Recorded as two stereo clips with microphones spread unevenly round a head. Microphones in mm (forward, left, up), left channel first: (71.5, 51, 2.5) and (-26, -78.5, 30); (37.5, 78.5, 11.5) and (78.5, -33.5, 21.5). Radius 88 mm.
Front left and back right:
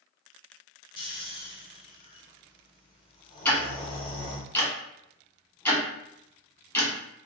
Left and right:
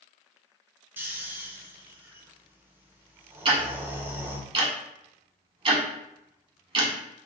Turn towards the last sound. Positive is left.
turn(degrees=-30)